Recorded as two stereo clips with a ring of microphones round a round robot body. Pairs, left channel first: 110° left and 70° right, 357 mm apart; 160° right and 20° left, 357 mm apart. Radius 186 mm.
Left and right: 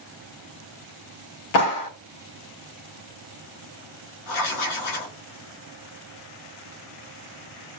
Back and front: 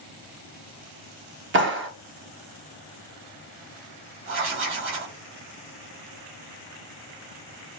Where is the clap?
80° left, 0.8 m.